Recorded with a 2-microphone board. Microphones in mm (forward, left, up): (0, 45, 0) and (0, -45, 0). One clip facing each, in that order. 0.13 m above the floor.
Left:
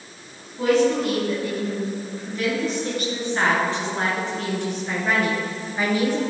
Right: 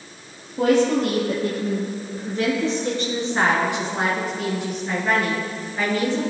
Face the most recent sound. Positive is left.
turn(degrees=15)  # may be behind; listen again after turning